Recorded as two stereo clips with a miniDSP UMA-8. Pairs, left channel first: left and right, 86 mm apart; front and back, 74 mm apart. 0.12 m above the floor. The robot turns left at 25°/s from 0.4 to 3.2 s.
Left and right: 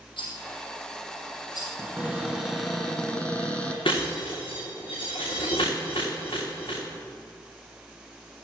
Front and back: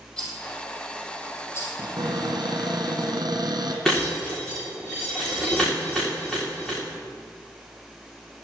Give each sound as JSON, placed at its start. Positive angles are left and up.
{"t": 0.2, "sound": "a rattle", "azimuth_deg": 75, "distance_m": 5.0}
{"t": 1.8, "sound": "a cupboard door", "azimuth_deg": -165, "distance_m": 2.5}
{"t": 3.9, "sound": "breaking glass", "azimuth_deg": 85, "distance_m": 6.0}